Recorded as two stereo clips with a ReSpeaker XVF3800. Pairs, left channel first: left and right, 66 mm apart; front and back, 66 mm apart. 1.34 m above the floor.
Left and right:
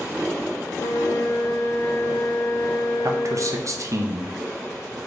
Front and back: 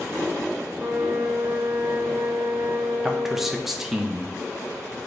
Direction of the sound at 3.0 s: 95° right.